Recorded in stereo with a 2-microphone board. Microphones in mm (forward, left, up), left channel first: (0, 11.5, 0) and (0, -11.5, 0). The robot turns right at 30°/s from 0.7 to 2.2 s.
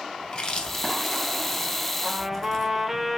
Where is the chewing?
40° left (ahead or behind), 0.6 m; by 2.9 s 20° left (ahead or behind), 0.6 m.